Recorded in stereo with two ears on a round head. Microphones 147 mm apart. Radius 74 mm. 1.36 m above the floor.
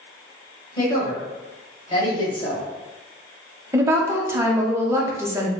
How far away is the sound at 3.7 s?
About 0.7 m.